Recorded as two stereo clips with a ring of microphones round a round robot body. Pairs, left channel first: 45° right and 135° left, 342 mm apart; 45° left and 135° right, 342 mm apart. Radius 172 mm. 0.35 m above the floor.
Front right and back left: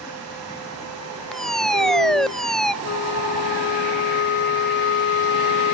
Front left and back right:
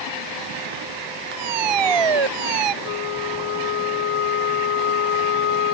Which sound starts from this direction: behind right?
A fire alarm, at 1.3 s.